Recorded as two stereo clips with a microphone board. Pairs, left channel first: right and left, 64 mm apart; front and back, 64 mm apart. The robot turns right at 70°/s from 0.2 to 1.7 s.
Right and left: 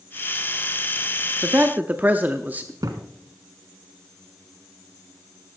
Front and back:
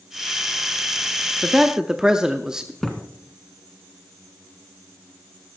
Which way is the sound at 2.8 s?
85° left.